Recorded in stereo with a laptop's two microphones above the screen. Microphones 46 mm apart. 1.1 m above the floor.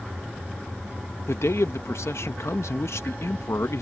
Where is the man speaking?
80° left.